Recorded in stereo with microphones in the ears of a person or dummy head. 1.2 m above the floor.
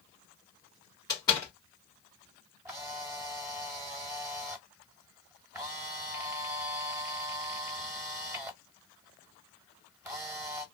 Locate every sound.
1.1 s a door slam: 15° left (ahead or behind), 1.5 m
2.6 s a camera shutter: 20° right (ahead or behind), 0.8 m